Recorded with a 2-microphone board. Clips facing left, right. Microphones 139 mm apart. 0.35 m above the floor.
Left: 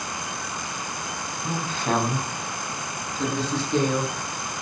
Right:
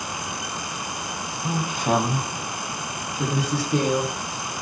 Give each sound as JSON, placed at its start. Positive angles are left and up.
{"t": 1.4, "sound": "a woman speaking", "side_deg": -15, "distance_m": 3.0}